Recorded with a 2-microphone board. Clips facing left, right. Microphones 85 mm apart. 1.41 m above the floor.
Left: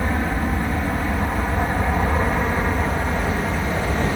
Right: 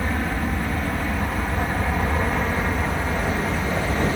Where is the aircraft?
20° left (ahead or behind); by 4.2 s 15° left (ahead or behind).